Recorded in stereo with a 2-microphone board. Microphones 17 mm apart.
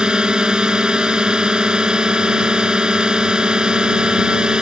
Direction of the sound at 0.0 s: 70° right (ahead or behind).